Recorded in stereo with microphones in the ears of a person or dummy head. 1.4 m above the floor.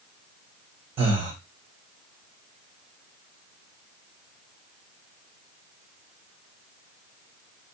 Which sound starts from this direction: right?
Breathing, at 1.0 s.